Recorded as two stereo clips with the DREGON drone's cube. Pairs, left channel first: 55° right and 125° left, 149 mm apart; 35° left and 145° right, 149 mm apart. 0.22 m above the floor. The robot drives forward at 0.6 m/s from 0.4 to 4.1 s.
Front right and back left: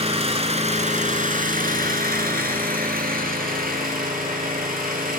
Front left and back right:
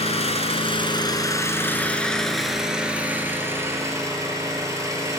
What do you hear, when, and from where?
0.0 s an engine running: 80° left, 1.5 m; by 5.2 s 145° left, 2.5 m